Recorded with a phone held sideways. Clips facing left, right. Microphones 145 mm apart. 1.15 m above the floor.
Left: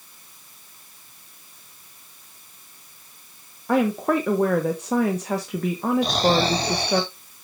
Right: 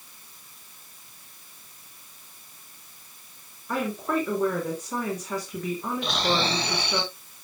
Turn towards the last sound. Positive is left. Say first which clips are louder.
# left 3 dB
turn(degrees=35)  # may be behind; listen again after turning